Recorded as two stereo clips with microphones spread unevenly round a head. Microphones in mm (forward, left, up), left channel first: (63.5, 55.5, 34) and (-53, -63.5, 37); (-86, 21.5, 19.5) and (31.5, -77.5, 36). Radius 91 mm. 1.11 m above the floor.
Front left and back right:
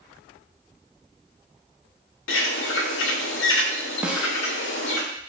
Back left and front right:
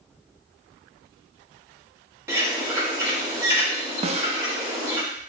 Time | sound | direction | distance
2.3 | a bird | 35° left | 0.6 m
4.0 | a snare drum | 55° right | 0.6 m